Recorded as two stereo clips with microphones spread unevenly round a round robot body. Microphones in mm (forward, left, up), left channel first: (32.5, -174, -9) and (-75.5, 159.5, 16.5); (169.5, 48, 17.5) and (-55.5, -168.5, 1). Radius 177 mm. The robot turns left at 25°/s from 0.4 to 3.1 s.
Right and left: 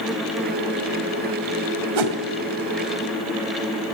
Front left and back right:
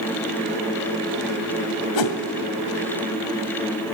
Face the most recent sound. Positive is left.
turn(degrees=55)